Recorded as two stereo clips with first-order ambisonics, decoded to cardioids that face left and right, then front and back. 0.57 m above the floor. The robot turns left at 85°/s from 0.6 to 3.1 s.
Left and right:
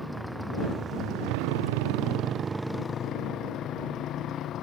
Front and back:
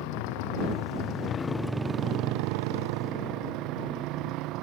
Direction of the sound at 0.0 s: Straight ahead.